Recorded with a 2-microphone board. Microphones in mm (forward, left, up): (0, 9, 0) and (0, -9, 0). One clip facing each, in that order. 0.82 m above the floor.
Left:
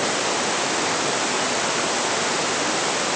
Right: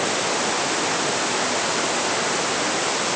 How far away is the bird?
No bird in this recording.